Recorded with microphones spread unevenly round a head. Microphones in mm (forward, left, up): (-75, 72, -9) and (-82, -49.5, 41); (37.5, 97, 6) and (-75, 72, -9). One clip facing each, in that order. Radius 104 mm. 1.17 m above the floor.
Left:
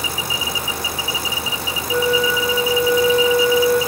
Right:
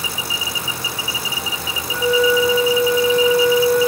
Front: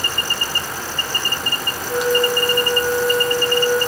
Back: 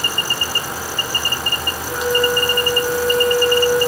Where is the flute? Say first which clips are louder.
Right 2 dB, even; 80° left, 9.5 m.